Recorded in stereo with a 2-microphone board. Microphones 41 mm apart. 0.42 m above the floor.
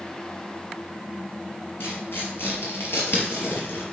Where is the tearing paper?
65° left (ahead or behind), 3.5 m.